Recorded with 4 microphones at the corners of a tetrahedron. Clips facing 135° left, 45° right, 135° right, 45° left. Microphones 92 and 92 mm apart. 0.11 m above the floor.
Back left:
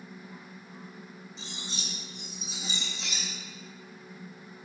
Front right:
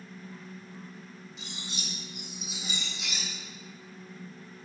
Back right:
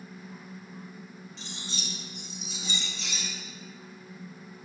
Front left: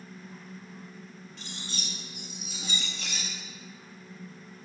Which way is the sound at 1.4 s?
80° left.